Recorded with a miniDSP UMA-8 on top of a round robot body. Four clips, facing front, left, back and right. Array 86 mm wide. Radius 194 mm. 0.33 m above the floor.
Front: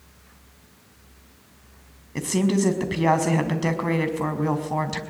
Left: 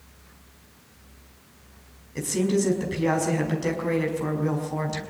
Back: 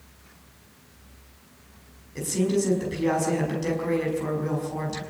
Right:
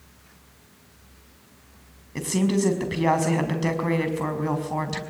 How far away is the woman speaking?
About 5 m.